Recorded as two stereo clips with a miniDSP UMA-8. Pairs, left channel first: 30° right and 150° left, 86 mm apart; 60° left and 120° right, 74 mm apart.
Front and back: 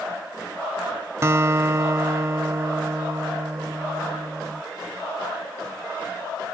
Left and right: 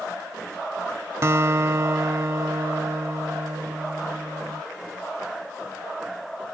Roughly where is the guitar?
Behind.